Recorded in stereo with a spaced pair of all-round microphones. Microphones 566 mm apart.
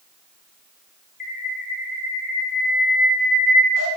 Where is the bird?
35° left (ahead or behind), 0.7 m.